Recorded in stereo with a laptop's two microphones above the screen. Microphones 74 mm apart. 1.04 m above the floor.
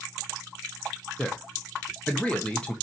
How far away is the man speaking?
About 0.8 m.